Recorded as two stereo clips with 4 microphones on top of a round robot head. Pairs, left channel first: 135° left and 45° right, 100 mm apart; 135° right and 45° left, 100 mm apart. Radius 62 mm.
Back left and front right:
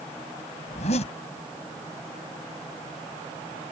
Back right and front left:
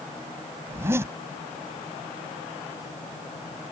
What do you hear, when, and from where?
0.7 s a zipper: 110° left